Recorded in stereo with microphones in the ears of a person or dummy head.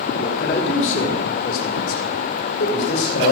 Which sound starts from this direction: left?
A man speaking, at 0.2 s.